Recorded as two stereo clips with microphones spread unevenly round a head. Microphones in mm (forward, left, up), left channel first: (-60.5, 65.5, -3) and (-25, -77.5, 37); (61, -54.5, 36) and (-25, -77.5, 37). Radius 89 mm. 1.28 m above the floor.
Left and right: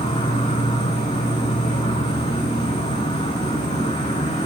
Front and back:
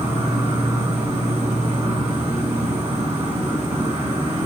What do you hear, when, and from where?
0.0 s an insect: 160° left, 3.5 m